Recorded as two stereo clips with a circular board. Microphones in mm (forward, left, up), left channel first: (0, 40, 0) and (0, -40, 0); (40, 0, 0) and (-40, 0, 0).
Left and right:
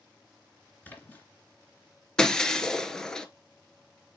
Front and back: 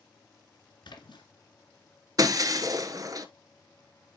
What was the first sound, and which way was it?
A splash, 20° left.